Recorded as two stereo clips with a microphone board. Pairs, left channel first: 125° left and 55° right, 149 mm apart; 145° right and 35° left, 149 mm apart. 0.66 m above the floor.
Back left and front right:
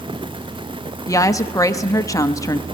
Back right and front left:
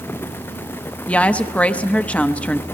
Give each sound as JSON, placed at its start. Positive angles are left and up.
{"t": 1.1, "sound": "a woman speaking", "azimuth_deg": 145, "distance_m": 0.8}